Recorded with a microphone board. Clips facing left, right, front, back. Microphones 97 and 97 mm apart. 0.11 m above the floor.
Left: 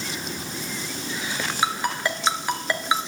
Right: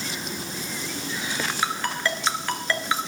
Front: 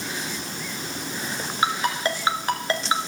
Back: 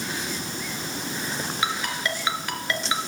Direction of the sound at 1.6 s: 25° left.